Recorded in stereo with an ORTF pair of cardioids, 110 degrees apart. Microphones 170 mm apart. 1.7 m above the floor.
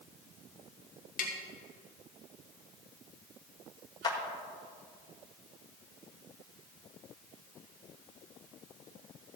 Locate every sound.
1.2 s tapping: 55° left, 2 m
4.0 s a clap: 25° left, 1.9 m